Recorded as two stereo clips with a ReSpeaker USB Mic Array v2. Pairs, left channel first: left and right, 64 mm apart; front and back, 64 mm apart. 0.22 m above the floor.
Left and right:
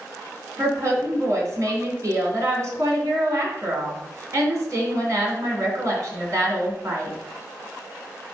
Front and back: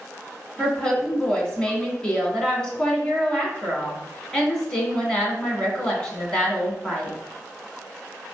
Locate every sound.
0.6 s a woman speaking: 70° right, 2.5 m